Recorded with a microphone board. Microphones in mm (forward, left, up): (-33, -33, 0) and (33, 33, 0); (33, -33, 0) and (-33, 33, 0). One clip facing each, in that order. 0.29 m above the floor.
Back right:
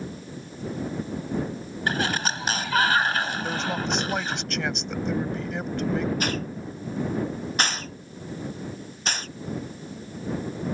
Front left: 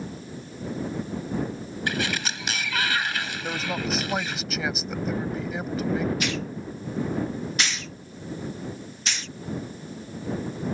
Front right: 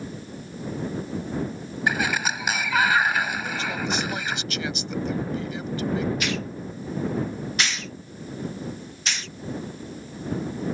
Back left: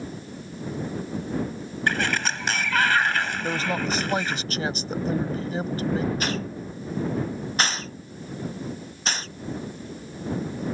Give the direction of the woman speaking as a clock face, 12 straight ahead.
8 o'clock.